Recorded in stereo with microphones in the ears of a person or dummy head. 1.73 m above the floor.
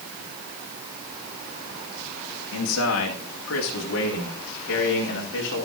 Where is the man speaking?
75° left (ahead or behind), 3 m; by 5.7 s 60° left (ahead or behind), 4.5 m.